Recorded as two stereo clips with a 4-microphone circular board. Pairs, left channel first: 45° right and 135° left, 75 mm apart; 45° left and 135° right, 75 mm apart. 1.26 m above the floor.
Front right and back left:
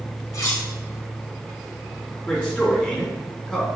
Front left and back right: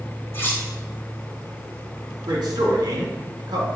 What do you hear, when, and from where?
0.3 s cutlery clinking: 10° right, 1.5 m
2.3 s a man speaking: 120° right, 3 m